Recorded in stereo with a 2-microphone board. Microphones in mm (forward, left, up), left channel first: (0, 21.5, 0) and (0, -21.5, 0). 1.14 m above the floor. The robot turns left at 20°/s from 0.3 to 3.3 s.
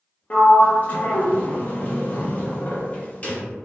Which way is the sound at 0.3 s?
30° left (ahead or behind).